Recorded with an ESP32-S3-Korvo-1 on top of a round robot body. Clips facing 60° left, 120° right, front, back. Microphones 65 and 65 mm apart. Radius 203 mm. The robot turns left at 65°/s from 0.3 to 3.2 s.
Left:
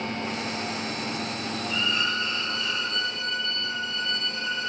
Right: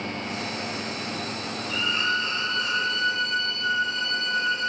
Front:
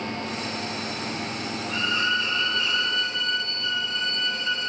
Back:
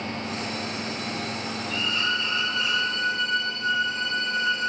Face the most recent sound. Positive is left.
turn(degrees=-140)